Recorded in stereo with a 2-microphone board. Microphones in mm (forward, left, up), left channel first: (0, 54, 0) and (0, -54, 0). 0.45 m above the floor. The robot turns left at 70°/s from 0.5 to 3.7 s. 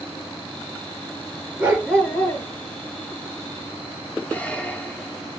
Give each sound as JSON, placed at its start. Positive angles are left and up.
{"t": 1.6, "sound": "a dog barking", "azimuth_deg": -160, "distance_m": 2.5}
{"t": 4.3, "sound": "a squeak", "side_deg": 10, "distance_m": 1.1}